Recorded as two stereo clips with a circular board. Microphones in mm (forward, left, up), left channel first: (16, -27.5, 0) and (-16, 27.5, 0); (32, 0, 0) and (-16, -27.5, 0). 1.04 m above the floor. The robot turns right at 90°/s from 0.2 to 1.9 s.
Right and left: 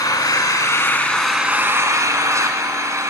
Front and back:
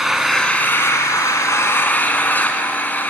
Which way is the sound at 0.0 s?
70° right.